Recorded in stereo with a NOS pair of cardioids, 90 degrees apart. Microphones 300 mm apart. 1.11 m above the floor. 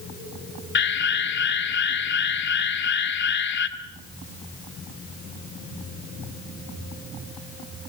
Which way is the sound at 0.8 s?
40° left.